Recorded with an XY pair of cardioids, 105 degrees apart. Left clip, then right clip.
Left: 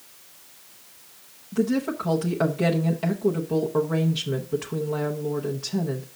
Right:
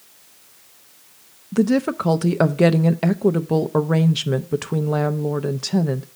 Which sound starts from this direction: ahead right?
A woman speaking, at 1.5 s.